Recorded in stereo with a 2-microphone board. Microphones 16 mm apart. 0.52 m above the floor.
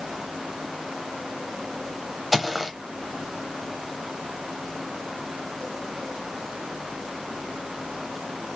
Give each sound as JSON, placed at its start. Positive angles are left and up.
{"t": 2.3, "sound": "footsteps", "side_deg": 0, "distance_m": 1.0}